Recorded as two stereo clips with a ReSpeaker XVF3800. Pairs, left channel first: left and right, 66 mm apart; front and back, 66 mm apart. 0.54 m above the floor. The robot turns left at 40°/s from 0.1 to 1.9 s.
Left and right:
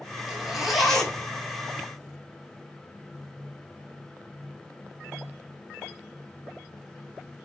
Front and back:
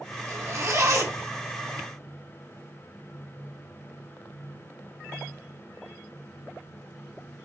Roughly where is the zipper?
Behind.